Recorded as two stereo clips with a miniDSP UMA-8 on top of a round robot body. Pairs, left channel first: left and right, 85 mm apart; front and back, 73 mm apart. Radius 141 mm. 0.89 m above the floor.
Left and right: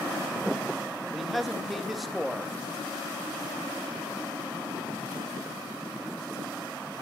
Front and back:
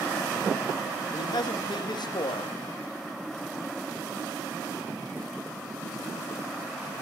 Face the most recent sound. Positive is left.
turn(degrees=0)